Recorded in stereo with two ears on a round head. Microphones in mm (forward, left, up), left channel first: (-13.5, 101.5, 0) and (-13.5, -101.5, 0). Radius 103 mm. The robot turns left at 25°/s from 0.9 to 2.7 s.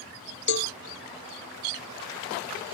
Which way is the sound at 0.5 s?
50° left (ahead or behind).